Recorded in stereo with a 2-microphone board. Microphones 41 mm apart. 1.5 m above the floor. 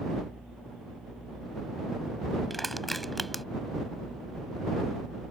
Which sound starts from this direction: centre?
Crushing, at 2.5 s.